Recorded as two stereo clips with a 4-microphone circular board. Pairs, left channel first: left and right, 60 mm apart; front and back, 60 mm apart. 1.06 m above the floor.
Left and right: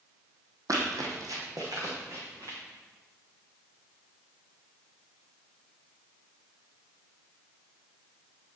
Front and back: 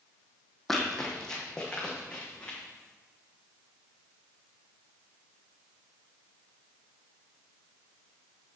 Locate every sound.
0.7 s running footsteps: 85° right, 2.5 m; by 2.6 s 70° right, 5 m